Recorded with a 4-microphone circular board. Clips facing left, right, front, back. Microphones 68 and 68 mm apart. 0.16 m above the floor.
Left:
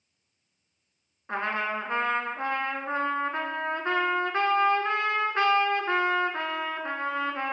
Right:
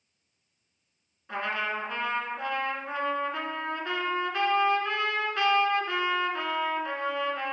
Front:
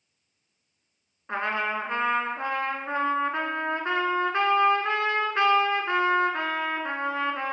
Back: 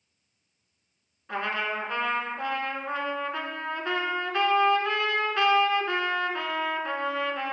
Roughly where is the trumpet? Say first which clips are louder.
Left 2 dB, front 2 dB; ahead left.